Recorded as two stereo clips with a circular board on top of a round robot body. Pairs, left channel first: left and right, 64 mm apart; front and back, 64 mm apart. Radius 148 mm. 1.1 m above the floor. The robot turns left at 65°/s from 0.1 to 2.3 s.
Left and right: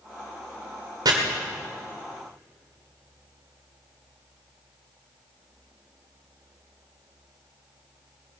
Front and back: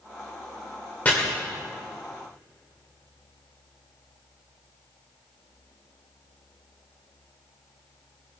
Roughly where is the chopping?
Ahead right.